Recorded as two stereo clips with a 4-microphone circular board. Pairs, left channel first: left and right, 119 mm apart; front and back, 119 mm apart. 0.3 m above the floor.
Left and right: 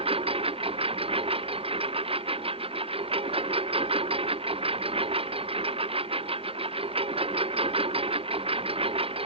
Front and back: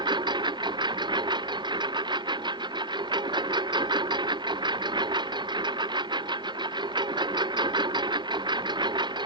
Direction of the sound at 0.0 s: 130° right.